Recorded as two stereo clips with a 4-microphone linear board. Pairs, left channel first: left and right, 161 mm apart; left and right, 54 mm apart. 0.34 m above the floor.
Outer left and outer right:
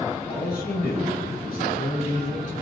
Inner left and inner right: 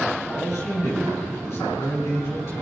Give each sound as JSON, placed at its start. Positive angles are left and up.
{"t": 0.3, "sound": "a man speaking", "side_deg": 70, "distance_m": 5.5}